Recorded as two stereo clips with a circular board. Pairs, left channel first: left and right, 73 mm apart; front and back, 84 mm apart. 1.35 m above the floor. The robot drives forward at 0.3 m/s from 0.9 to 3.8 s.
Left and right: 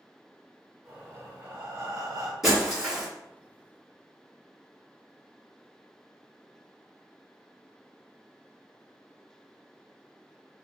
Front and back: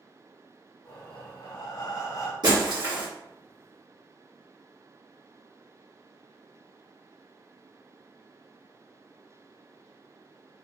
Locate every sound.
0.8 s breathing: 30° right, 0.9 m; by 2.3 s 50° right, 0.6 m
2.4 s breaking glass: 175° right, 1.3 m